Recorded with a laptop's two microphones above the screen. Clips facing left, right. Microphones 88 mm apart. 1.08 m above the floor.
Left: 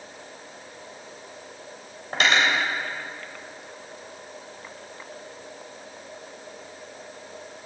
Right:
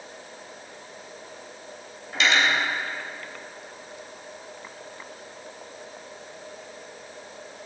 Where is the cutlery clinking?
50° left (ahead or behind), 3 m.